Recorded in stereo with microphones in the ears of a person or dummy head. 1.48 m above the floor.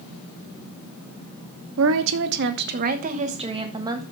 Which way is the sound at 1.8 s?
75° right (ahead or behind).